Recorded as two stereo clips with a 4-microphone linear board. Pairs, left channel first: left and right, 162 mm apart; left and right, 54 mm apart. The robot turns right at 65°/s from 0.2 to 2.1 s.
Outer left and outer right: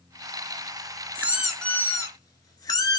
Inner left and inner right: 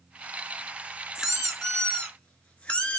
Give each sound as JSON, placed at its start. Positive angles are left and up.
{"t": 1.1, "sound": "a squeak", "azimuth_deg": -20, "distance_m": 0.7}